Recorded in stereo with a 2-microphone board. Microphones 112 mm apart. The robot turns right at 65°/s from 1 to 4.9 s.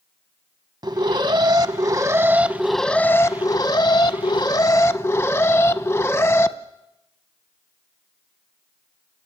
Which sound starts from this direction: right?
An alarm, at 0.8 s.